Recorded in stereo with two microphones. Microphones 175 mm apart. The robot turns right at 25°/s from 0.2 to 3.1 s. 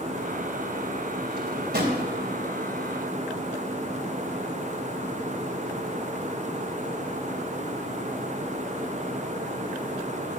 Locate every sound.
1.3 s a drawer: 80° right, 3 m; by 2.0 s 65° right (ahead or behind), 3 m